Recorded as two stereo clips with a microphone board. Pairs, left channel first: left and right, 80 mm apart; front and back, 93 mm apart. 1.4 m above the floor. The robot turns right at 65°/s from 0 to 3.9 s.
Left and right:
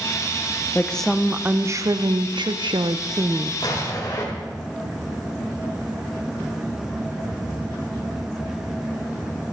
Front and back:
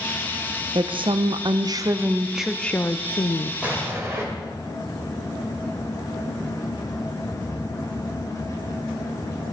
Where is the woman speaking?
160° left, 0.6 m; by 3.5 s 20° right, 0.6 m.